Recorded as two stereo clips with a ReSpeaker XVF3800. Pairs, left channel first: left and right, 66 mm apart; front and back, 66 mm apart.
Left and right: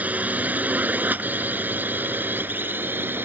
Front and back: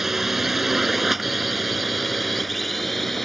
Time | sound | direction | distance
0.0 | a drone | 100° right | ?